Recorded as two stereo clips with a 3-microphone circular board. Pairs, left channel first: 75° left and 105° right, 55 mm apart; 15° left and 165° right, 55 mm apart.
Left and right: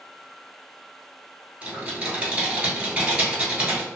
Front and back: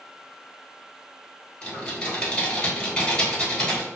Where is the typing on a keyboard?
50° right, 1.3 m.